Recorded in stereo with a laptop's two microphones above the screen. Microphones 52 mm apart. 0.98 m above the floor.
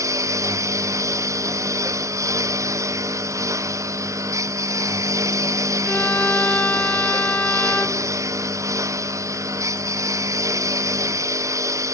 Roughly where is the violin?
Left.